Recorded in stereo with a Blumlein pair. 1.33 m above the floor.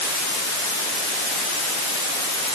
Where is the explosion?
I don't hear an explosion.